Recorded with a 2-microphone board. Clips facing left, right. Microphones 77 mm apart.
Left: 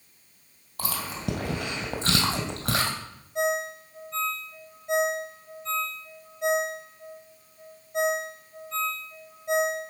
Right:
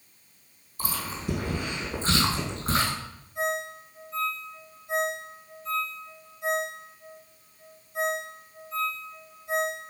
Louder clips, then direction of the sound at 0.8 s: Left 2 dB; 60° left (ahead or behind).